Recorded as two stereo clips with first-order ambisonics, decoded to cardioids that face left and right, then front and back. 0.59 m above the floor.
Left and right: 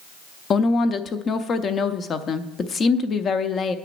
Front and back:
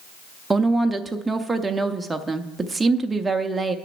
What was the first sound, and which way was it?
A woman speaking, 115° left.